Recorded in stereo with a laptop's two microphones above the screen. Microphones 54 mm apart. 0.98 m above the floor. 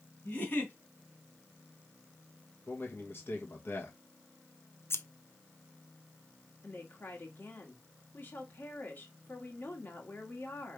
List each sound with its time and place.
0.2 s a giggle: 35° left (ahead or behind), 2.5 m
2.7 s a man speaking: 40° left (ahead or behind), 1.3 m
4.9 s scissors: 50° left (ahead or behind), 0.6 m
6.6 s a woman speaking: 40° left (ahead or behind), 1.5 m